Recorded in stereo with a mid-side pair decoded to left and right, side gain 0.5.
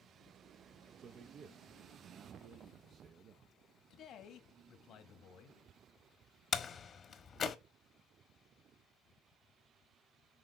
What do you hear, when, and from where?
1.0 s a man speaking: 55° right, 0.7 m
3.9 s a man speaking: 65° left, 1.7 m
6.5 s a door slam: 45° left, 1.2 m